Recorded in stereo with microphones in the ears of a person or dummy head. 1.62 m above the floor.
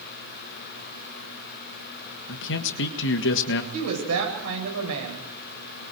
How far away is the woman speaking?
About 9 m.